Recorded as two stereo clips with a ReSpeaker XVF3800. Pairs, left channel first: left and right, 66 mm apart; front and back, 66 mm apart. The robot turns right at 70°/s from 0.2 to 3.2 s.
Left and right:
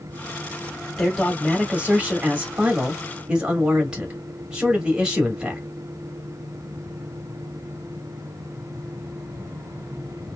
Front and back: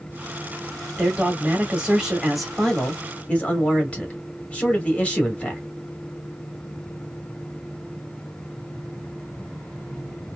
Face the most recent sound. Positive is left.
turn(degrees=-40)